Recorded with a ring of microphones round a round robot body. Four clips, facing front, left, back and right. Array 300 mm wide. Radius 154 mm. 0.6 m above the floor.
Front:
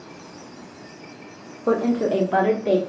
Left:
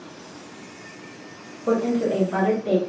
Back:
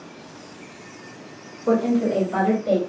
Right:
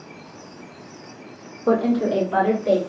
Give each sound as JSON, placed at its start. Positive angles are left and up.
{"t": 1.7, "sound": "a woman speaking", "azimuth_deg": -50, "distance_m": 0.6}